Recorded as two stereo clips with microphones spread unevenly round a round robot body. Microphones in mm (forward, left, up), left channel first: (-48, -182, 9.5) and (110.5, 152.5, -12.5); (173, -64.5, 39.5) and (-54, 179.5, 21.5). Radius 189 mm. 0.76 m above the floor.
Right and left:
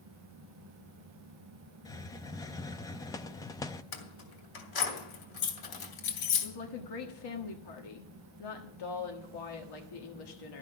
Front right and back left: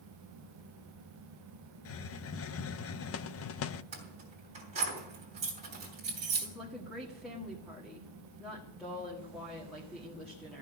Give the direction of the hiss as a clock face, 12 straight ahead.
1 o'clock.